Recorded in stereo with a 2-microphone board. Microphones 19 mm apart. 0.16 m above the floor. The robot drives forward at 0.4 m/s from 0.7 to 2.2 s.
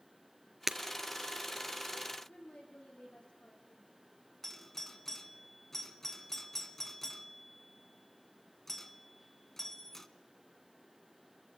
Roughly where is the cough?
No cough in this recording.